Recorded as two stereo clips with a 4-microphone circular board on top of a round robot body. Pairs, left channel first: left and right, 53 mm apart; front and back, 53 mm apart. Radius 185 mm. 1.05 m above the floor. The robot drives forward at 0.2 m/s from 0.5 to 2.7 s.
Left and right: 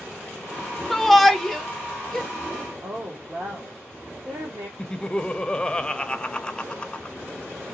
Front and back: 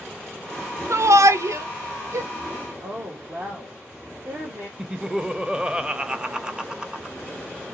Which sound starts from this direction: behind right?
A woman speaking, at 2.8 s.